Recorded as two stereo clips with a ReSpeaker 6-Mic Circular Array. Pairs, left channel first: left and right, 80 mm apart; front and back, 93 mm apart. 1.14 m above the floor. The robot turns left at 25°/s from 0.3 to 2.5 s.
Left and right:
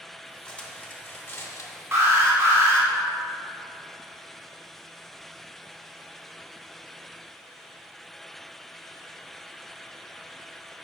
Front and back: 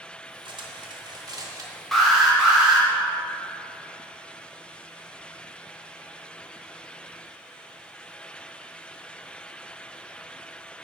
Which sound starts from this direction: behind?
Cutlery clinking, at 0.5 s.